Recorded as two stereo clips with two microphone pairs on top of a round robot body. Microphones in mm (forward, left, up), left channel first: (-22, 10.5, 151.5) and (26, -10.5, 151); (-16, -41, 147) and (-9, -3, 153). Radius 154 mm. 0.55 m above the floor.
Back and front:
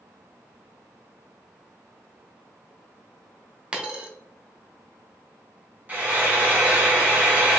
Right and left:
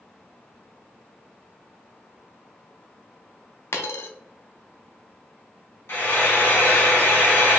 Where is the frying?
80° right, 2.0 m.